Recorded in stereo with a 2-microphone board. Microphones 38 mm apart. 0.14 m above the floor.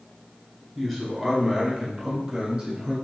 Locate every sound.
0.8 s a man speaking: 5° left (ahead or behind), 1.6 m; by 3.0 s 25° right (ahead or behind), 2.5 m